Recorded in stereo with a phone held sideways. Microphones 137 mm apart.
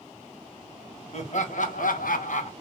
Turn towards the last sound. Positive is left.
turn(degrees=55)  # may be behind; listen again after turning